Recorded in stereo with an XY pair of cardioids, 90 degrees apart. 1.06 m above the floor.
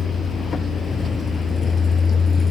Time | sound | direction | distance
0.0 | a vehicle | 60° left | ?